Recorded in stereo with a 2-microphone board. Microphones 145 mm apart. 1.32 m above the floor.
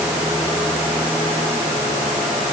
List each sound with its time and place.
Only background noise.